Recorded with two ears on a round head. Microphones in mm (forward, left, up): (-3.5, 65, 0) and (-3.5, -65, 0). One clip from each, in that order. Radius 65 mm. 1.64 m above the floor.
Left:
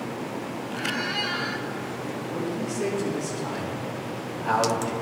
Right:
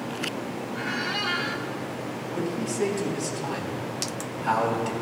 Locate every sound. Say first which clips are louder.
0.7 s a squeak: left 1 dB; 10° right (ahead or behind), 0.9 m
2.3 s a man speaking: right 1 dB; 90° right, 5.5 m